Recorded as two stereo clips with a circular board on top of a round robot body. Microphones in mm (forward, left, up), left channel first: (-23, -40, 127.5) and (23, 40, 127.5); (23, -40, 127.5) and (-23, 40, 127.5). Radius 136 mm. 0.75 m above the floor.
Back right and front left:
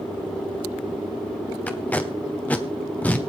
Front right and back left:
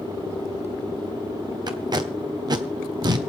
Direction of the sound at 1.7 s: 165° left.